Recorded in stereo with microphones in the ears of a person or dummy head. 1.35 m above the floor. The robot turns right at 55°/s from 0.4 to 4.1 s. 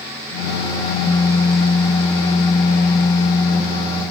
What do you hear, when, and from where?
Only background noise.